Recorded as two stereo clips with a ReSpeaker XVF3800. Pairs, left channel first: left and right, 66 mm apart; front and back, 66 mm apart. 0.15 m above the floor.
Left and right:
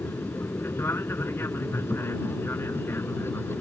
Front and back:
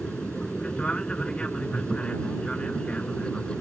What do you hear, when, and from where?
0.0 s an aircraft: 70° left